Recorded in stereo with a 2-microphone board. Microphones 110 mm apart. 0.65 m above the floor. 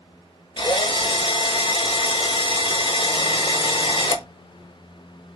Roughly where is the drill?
Left.